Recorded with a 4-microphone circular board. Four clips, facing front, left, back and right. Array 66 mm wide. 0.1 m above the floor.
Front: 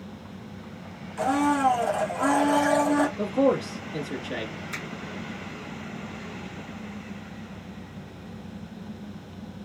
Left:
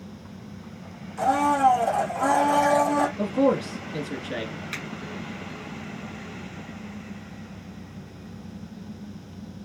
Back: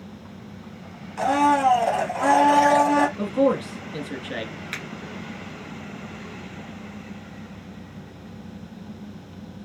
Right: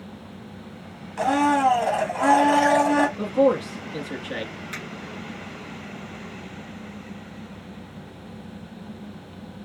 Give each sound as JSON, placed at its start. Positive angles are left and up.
{"t": 1.2, "sound": "a blender", "azimuth_deg": -130, "distance_m": 1.8}
{"t": 3.2, "sound": "a man speaking", "azimuth_deg": -150, "distance_m": 1.3}
{"t": 4.7, "sound": "a finger snap", "azimuth_deg": 170, "distance_m": 2.5}